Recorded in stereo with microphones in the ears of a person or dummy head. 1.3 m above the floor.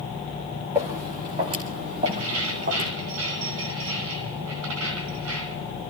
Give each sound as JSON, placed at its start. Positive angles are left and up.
{"t": 0.8, "sound": "footsteps", "side_deg": -20, "distance_m": 3.0}
{"t": 2.0, "sound": "keys jangling", "side_deg": -75, "distance_m": 3.5}